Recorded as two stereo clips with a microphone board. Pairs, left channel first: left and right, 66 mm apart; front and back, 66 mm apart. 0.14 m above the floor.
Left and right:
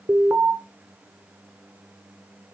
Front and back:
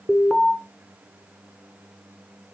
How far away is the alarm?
About 1.5 m.